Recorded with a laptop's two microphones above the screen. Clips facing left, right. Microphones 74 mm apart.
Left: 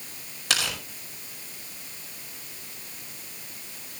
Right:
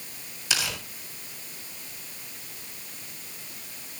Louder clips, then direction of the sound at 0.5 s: Left 2 dB; 70° left (ahead or behind).